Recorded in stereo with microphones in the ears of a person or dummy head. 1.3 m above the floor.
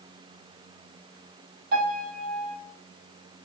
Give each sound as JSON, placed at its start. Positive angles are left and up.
{"t": 1.7, "sound": "a piano", "side_deg": -55, "distance_m": 1.4}